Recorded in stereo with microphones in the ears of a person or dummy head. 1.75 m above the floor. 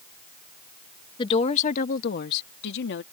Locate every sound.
1.2 s a woman speaking: 30° left (ahead or behind); by 3.0 s 75° left (ahead or behind)